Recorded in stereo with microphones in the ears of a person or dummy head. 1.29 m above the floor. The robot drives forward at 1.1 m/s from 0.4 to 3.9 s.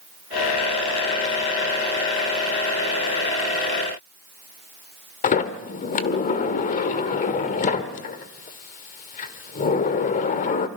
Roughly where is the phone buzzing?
I don't hear a phone buzzing.